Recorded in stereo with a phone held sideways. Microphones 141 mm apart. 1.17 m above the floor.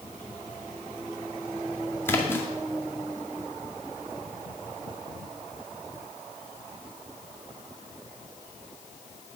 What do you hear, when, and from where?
2.1 s a splash: 15° left (ahead or behind), 2 m